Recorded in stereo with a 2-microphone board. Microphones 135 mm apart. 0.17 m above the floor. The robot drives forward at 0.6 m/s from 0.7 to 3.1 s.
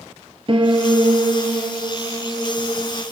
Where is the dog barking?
No dog barking in this recording.